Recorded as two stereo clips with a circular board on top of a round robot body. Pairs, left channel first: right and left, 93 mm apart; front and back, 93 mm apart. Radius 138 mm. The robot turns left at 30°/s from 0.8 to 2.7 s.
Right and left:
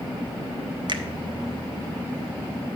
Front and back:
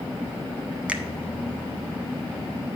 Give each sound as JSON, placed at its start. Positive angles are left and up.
{"t": 0.9, "sound": "a finger snap", "azimuth_deg": 105, "distance_m": 0.8}